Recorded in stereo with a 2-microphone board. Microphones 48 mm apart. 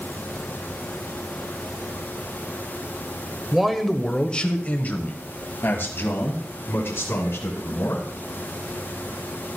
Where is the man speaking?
10° right (ahead or behind), 1.2 m; by 8.0 s 65° left (ahead or behind), 3.5 m.